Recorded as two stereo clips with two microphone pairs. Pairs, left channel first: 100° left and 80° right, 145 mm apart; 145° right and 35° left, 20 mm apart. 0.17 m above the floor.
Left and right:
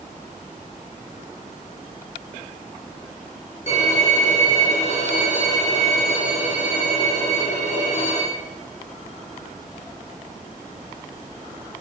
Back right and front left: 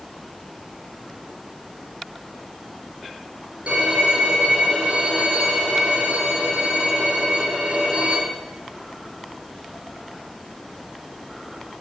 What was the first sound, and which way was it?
A violin, 60° left.